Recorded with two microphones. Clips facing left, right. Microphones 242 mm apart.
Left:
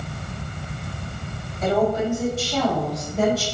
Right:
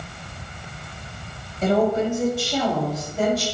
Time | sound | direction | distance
1.6 | a woman speaking | 35° right (ahead or behind) | 1.9 m